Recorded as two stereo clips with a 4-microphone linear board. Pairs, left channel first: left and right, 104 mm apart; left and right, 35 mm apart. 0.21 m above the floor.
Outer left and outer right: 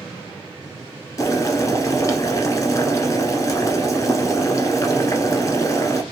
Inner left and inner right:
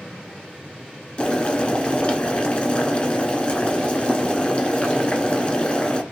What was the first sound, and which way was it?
Boiling, 35° left (ahead or behind).